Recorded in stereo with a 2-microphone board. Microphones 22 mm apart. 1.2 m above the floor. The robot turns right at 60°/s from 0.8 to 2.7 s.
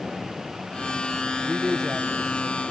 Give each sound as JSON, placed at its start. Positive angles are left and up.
{"t": 1.4, "sound": "a man speaking", "azimuth_deg": -5, "distance_m": 1.0}